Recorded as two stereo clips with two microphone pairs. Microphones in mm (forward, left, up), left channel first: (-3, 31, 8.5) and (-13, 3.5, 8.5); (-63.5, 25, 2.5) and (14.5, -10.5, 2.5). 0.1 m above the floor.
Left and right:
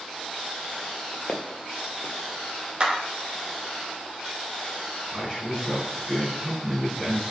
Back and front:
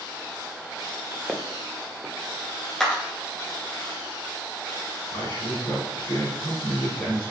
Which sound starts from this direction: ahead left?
Footsteps, at 1.3 s.